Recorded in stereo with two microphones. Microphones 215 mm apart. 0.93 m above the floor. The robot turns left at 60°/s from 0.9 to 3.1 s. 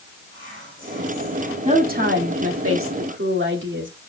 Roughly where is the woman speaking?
Ahead right.